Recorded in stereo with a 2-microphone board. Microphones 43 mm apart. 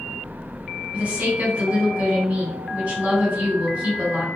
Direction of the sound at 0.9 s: 35° right (ahead or behind).